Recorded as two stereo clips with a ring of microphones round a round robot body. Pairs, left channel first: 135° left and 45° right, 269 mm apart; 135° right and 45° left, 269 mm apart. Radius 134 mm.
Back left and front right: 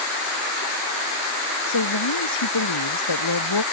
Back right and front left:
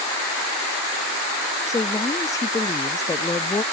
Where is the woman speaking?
145° left.